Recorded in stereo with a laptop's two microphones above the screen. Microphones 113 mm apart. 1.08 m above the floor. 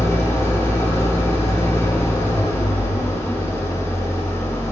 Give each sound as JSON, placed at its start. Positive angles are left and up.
{"t": 0.0, "sound": "an engine running", "side_deg": 25, "distance_m": 1.0}